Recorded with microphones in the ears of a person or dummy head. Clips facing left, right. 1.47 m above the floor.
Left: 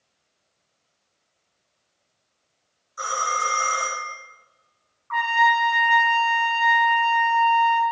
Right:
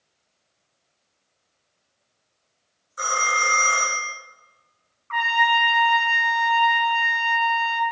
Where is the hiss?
No hiss in this recording.